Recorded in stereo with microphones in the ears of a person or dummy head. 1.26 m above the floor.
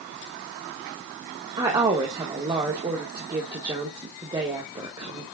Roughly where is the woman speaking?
Right.